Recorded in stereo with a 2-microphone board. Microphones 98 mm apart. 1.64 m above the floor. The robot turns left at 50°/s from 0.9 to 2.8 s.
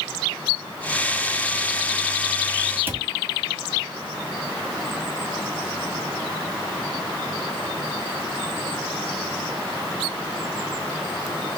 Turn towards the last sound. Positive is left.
turn(degrees=-20)  # may be behind; listen again after turning